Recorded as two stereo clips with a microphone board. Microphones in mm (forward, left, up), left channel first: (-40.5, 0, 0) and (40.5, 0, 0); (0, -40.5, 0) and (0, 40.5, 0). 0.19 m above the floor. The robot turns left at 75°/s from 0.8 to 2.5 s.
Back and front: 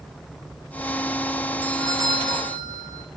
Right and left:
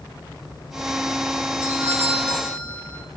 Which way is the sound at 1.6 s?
60° left.